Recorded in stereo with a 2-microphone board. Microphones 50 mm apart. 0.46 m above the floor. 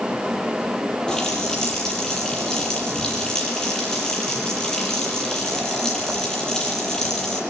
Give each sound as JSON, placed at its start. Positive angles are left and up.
{"t": 1.1, "sound": "a running tap", "side_deg": 15, "distance_m": 7.5}